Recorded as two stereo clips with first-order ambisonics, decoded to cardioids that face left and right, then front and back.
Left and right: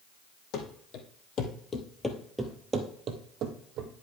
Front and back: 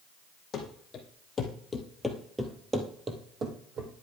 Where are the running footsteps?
60° left, 3 m; by 3.9 s 125° right, 2.5 m.